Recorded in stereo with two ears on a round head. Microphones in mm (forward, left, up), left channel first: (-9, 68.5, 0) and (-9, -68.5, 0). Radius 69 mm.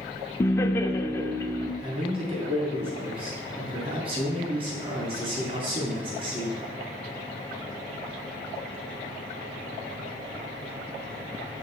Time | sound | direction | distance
0.4 | laughter | 15° left (ahead or behind) | 0.7 m
1.8 | a man speaking | 35° right (ahead or behind) | 3 m